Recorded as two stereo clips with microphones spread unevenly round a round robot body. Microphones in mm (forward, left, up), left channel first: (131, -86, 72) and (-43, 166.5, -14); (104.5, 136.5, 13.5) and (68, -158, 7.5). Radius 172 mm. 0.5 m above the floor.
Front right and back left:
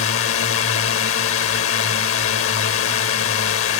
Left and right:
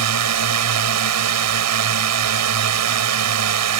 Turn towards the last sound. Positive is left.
turn(degrees=-110)